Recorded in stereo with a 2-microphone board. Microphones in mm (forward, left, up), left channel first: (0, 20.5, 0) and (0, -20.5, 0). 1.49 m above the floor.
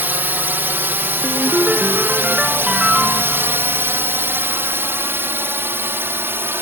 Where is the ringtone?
20° right (ahead or behind).